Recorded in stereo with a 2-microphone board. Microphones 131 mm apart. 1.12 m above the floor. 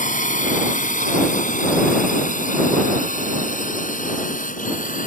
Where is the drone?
80° left; by 5.1 s 85° left.